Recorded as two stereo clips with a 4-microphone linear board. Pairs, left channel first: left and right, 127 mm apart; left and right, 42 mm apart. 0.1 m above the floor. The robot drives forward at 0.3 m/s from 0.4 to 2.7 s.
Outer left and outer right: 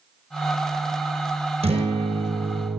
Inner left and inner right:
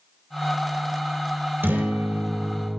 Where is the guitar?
50° right (ahead or behind), 3.5 m; by 2.8 s 45° right (ahead or behind), 3.5 m.